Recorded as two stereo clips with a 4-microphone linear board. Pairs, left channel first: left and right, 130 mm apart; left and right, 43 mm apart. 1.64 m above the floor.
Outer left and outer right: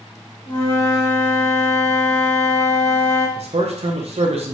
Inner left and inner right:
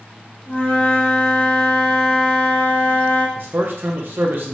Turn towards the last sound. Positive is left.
turn(degrees=-55)  # may be behind; listen again after turning